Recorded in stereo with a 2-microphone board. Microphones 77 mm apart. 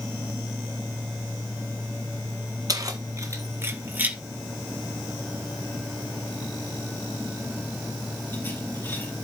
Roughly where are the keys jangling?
Right.